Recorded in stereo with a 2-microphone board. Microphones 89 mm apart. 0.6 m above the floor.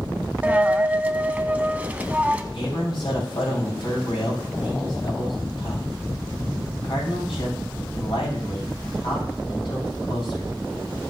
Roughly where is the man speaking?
Left.